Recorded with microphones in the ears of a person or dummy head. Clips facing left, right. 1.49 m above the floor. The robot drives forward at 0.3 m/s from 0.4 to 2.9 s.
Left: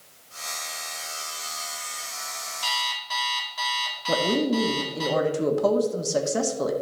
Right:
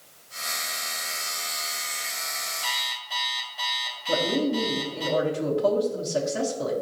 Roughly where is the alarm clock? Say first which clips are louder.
Left 3 dB; left.